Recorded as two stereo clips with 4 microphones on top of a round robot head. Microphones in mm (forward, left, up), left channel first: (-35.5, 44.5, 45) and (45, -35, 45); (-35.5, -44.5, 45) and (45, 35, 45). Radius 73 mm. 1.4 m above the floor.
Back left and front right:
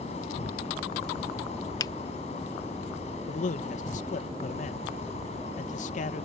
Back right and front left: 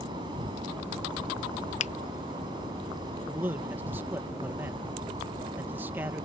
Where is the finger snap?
165° right.